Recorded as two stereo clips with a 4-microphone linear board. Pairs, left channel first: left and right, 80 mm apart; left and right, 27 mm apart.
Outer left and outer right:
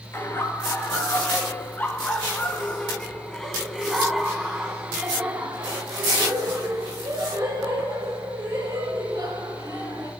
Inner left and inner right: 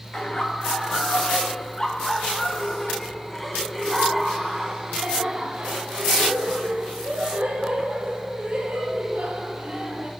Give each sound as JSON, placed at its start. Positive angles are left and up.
{"t": 0.1, "sound": "laughter", "side_deg": 30, "distance_m": 3.0}